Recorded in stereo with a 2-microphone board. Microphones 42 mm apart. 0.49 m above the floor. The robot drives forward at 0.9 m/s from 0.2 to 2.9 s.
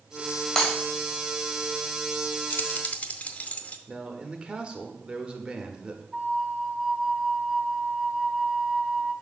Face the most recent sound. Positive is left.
turn(degrees=-15)  # may be behind; listen again after turning